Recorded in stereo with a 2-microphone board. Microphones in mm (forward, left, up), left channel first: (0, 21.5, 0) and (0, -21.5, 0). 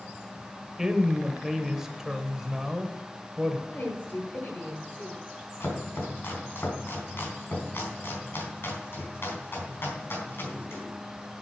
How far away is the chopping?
About 3.5 m.